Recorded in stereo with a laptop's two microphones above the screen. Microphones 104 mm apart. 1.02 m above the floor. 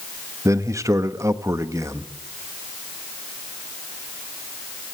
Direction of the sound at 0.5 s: 30° right (ahead or behind).